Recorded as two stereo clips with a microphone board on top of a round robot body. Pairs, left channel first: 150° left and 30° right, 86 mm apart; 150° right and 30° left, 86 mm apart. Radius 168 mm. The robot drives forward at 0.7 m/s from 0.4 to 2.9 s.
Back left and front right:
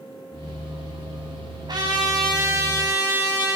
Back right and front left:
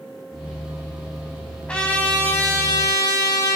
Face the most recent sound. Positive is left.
turn(degrees=-95)